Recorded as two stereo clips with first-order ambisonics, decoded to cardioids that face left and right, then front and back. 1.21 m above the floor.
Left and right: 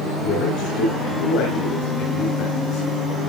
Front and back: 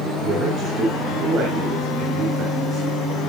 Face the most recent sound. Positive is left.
turn(degrees=120)